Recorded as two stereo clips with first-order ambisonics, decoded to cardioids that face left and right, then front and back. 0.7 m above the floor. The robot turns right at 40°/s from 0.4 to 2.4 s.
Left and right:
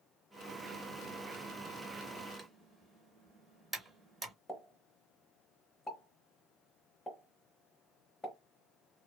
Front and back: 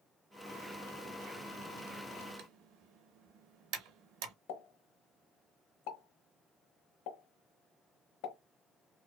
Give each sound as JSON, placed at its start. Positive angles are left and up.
{"t": 2.4, "sound": "typing on a keyboard", "azimuth_deg": -165, "distance_m": 0.6}
{"t": 4.5, "sound": "a pop", "azimuth_deg": 10, "distance_m": 0.9}